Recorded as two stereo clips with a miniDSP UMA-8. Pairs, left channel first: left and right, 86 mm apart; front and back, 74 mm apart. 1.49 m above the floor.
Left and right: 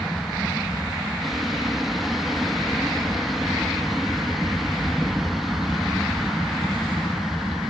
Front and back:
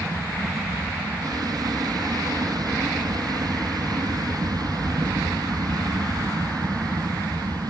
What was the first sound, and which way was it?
An aircraft, straight behind.